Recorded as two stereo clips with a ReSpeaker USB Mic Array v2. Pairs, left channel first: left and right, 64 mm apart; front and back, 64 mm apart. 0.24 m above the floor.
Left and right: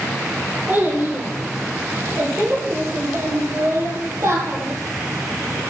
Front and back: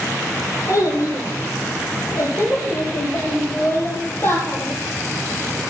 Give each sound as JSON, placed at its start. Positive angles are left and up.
{"t": 0.7, "sound": "a child speaking", "azimuth_deg": -30, "distance_m": 6.0}